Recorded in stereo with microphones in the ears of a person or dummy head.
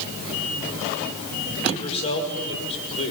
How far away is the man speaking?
About 5 m.